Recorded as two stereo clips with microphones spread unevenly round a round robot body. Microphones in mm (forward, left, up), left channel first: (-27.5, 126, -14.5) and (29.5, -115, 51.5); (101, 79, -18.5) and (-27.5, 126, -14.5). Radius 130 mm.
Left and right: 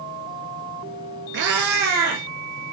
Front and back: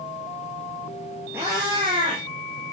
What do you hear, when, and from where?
1.3 s a cat meowing: 120° right, 1.5 m; by 2.7 s 135° right, 3 m